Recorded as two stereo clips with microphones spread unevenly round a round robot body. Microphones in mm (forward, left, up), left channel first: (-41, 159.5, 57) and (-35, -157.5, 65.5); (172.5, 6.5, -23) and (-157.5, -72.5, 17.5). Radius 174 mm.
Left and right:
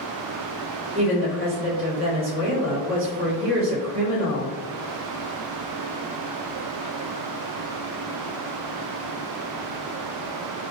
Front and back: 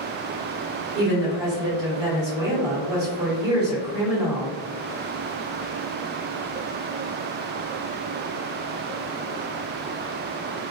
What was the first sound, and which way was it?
A woman speaking, 125° right.